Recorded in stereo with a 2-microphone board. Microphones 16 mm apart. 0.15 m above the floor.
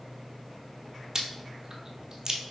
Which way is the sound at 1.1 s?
35° right (ahead or behind).